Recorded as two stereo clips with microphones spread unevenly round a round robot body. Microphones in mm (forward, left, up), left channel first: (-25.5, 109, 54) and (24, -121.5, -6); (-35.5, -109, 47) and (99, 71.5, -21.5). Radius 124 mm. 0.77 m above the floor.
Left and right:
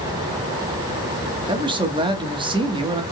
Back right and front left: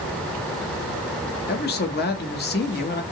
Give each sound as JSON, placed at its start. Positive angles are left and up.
{"t": 1.5, "sound": "a man speaking", "azimuth_deg": -85, "distance_m": 1.2}